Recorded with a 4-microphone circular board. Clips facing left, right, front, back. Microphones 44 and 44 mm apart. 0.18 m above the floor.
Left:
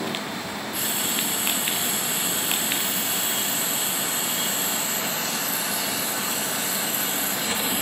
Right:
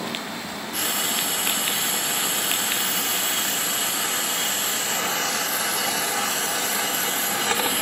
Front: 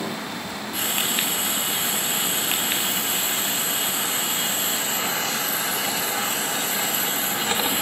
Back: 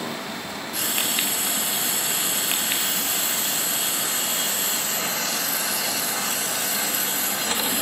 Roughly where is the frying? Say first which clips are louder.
Right 4 dB, front 1 dB; ahead right.